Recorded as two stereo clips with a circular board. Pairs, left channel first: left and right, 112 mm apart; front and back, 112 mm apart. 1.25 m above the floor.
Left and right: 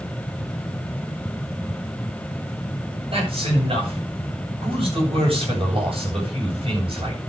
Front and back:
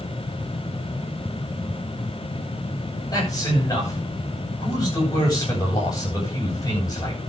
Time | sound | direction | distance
3.1 | a man speaking | 55° right | 9 m